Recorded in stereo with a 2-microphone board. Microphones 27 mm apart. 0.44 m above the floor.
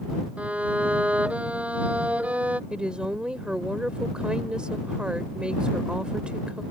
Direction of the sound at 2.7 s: 35° right (ahead or behind).